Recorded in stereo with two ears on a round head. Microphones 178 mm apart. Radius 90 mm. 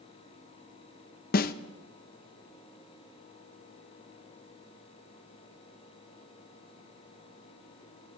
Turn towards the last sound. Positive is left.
turn(degrees=50)  # may be behind; listen again after turning